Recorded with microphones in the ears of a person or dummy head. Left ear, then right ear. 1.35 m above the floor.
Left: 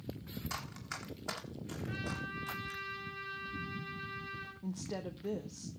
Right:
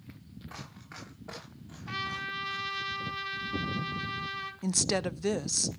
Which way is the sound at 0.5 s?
65° left (ahead or behind).